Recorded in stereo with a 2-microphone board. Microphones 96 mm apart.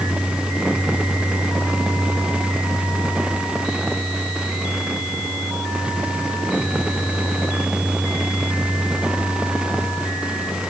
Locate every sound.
Only background noise.